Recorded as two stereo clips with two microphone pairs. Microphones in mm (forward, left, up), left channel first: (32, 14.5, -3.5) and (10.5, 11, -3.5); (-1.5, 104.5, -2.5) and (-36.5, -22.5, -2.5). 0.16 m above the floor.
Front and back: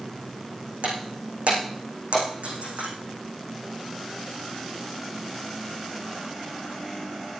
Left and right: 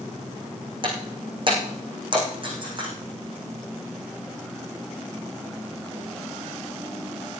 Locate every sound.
0.8 s breaking glass: 155° right, 5.5 m